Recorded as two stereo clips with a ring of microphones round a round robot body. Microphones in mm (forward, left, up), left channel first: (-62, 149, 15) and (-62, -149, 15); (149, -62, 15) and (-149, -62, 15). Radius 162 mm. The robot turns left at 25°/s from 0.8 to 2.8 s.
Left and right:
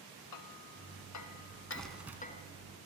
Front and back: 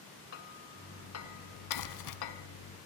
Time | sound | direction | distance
0.3 | hammering | 55° left | 1.3 m
1.7 | crumpling | 5° left | 1.7 m